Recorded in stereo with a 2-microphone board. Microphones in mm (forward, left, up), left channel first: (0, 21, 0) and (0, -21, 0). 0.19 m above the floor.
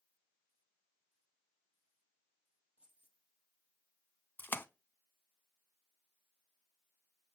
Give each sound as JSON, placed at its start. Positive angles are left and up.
{"t": 2.8, "sound": "keys jangling", "side_deg": -25, "distance_m": 3.0}
{"t": 4.4, "sound": "a splash", "side_deg": 50, "distance_m": 0.5}